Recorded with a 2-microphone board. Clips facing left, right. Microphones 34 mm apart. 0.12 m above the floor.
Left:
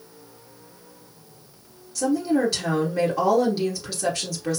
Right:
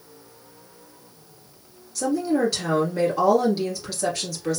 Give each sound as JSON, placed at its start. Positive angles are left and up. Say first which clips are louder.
{"t": 1.9, "sound": "a woman speaking", "louder": "left 1 dB", "side_deg": 0, "distance_m": 2.5}